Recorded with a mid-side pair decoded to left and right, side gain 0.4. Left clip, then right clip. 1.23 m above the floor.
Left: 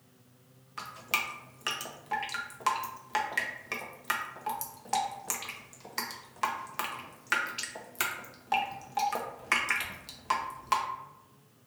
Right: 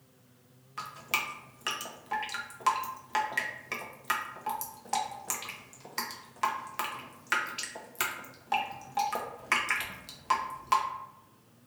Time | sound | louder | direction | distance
0.8 | dripping | even | 5° left | 0.6 m